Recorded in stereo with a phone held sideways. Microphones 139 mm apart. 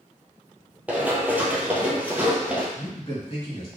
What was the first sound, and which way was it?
Running footsteps, 10° right (ahead or behind).